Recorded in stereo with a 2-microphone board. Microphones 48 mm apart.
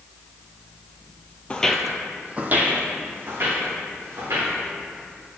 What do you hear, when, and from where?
1.5 s footsteps: 25° left (ahead or behind), 0.5 m; by 4.5 s 60° right (ahead or behind), 2.5 m